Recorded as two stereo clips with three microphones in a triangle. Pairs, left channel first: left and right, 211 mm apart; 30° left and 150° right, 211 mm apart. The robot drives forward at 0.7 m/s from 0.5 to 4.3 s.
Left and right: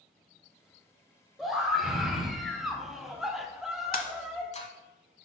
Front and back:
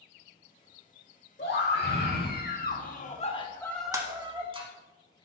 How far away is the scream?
About 1.8 m.